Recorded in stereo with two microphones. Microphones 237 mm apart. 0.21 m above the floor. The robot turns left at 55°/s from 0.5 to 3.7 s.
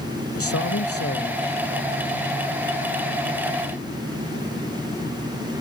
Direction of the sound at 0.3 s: 100° left.